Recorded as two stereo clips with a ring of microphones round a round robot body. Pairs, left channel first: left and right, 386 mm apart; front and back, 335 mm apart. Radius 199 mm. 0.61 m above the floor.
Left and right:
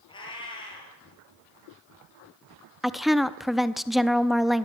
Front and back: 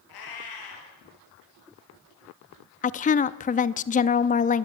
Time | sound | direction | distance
0.1 | a cat meowing | 10° left | 7.5 m
2.8 | a woman speaking | straight ahead | 0.6 m